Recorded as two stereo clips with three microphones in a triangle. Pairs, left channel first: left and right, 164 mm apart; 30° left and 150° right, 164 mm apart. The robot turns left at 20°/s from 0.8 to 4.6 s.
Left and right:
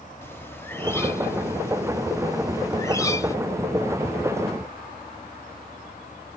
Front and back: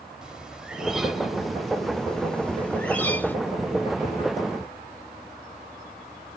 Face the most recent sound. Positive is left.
turn(degrees=60)